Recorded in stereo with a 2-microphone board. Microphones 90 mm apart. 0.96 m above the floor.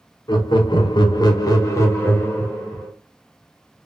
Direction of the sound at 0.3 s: 55° left (ahead or behind).